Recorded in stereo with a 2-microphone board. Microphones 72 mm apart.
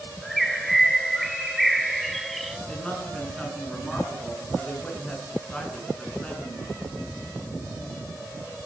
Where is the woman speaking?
15° left (ahead or behind), 7.5 m.